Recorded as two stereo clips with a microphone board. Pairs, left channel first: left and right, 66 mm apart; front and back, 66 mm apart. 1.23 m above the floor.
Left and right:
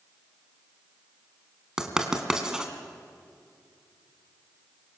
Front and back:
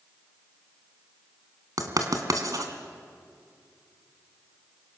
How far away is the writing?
About 2 m.